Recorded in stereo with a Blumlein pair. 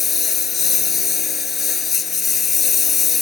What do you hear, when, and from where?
0.0 s a lawn mower: 20° left